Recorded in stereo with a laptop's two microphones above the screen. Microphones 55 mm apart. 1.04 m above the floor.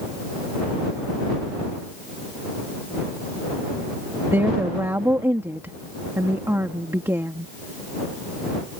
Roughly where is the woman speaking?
Right.